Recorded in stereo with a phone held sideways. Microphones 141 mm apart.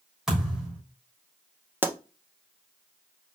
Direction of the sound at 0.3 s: 5° right (ahead or behind).